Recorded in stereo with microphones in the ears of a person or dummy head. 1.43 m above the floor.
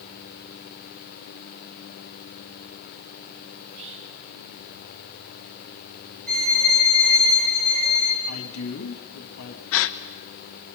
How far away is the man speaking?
About 2 m.